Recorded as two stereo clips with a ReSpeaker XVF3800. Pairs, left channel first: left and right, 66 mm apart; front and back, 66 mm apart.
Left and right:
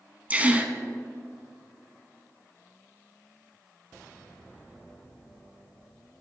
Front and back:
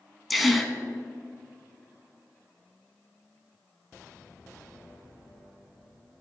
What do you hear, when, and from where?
0.3 s a gasp: 95° right, 0.8 m